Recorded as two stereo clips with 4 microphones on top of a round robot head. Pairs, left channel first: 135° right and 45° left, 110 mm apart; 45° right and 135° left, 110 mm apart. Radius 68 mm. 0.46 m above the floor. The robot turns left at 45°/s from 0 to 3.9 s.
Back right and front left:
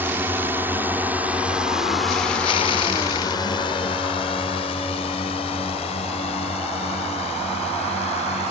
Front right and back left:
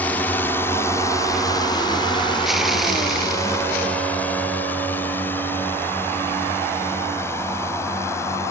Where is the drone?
5° left; by 8.5 s 110° right.